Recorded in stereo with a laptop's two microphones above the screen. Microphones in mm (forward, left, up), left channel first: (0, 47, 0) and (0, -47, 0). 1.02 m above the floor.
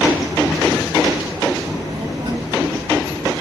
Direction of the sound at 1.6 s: 85° right.